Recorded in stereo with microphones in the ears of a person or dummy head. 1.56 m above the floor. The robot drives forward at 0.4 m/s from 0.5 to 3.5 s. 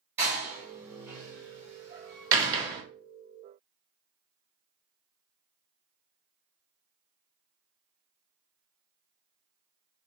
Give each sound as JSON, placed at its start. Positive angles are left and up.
{"t": 0.2, "sound": "a door slam", "side_deg": -15, "distance_m": 1.8}